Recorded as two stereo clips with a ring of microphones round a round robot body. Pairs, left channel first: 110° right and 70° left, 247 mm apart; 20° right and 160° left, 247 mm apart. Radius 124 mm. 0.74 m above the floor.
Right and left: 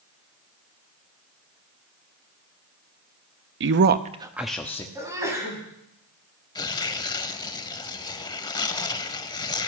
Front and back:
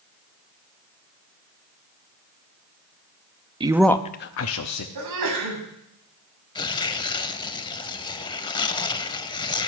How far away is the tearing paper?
About 0.5 m.